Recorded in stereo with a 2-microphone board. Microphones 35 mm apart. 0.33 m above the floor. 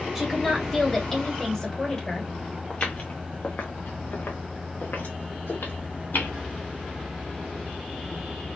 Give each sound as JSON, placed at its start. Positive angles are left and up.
{"t": 0.1, "sound": "a woman speaking", "side_deg": 0, "distance_m": 2.0}
{"t": 2.7, "sound": "footsteps", "side_deg": 40, "distance_m": 1.6}